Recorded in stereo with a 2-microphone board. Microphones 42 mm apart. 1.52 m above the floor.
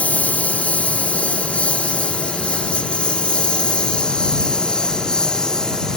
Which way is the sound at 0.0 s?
30° left (ahead or behind).